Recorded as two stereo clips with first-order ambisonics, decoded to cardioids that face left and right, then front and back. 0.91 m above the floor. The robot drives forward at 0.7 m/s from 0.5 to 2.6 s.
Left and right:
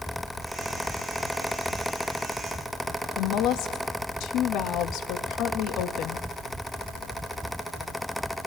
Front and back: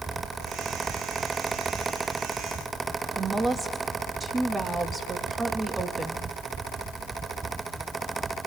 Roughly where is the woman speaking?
Left.